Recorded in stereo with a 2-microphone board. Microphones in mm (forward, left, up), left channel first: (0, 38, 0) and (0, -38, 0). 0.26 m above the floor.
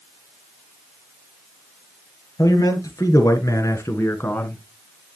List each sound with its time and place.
2.4 s a man speaking: 55° left (ahead or behind), 5 m; by 4.6 s 20° left (ahead or behind), 2.5 m